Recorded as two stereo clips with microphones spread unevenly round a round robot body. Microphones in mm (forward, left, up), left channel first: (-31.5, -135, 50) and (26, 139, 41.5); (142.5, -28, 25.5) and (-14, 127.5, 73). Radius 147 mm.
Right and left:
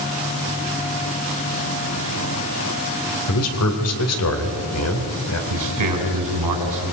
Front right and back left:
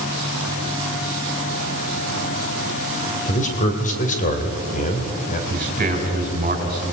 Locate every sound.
3.3 s a man speaking: 85° right, 2.5 m
5.5 s a man speaking: 80° left, 5 m